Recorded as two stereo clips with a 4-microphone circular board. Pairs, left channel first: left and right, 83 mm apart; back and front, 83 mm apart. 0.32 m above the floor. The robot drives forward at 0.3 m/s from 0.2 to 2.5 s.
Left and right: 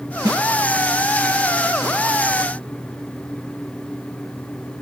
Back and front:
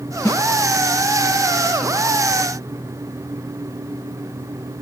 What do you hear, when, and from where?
0.2 s a snare drum: 130° right, 1.0 m